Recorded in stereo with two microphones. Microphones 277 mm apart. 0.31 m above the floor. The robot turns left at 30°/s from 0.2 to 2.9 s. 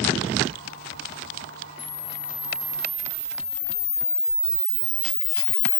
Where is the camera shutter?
50° left, 1.1 m; by 5.8 s 15° left, 1.1 m.